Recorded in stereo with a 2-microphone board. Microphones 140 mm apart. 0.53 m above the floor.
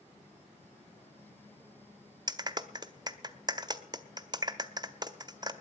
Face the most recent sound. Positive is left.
turn(degrees=-30)  # may be behind; listen again after turning